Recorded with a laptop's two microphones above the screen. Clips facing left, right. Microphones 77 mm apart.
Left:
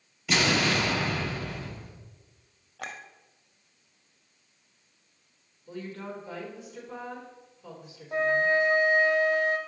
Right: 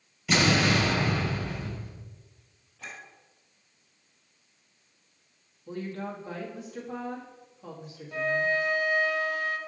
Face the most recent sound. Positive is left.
turn(degrees=35)  # may be behind; listen again after turning